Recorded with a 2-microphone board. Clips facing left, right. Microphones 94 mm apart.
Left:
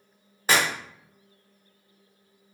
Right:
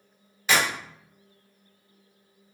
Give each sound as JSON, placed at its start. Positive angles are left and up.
{"t": 0.5, "sound": "a clap", "side_deg": 40, "distance_m": 1.0}